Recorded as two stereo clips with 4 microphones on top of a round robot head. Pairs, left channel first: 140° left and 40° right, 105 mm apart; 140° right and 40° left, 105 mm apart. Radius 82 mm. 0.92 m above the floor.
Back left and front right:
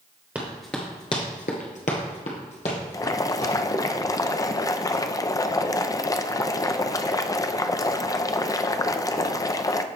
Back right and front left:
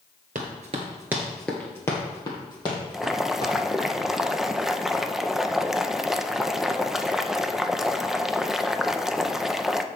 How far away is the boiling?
About 0.5 m.